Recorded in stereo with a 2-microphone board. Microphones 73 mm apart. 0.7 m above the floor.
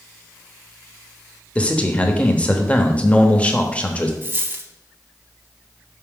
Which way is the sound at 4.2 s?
30° right (ahead or behind).